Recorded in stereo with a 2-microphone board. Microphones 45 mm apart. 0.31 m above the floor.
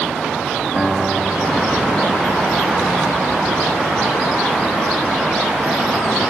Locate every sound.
0.8 s a guitar: 10° left (ahead or behind), 1.3 m